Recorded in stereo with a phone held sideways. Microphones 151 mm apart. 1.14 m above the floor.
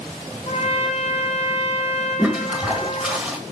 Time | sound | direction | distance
0.5 | a trumpet | 45° left (ahead or behind) | 0.9 m
2.2 | a toilet flushing | 5° right (ahead or behind) | 1.4 m